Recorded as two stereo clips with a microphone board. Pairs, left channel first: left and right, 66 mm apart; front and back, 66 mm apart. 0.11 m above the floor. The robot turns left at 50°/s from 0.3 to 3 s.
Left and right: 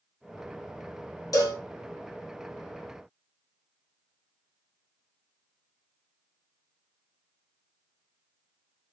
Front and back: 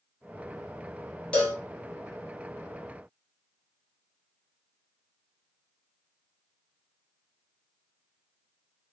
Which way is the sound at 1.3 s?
70° left.